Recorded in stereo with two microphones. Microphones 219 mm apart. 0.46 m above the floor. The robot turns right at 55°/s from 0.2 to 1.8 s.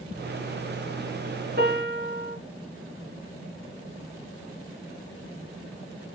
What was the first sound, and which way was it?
A piano, 45° right (ahead or behind).